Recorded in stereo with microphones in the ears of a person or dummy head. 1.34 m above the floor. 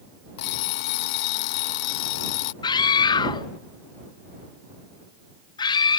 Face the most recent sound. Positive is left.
turn(degrees=25)  # may be behind; listen again after turning